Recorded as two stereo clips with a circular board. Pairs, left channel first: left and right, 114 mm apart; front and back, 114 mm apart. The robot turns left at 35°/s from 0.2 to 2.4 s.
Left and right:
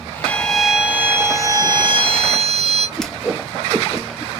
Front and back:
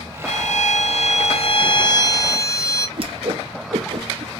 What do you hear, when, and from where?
0.2 s a violin: 10° left, 0.7 m; by 2.9 s 65° right, 0.7 m
3.0 s a whoosh: 175° left, 0.6 m